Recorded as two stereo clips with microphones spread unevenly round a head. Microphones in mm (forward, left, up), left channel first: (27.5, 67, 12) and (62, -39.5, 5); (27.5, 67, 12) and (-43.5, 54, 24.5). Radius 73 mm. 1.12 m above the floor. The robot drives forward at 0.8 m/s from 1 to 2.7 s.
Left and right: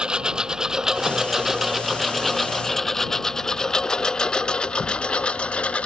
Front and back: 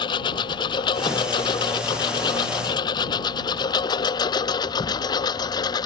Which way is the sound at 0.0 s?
10° left.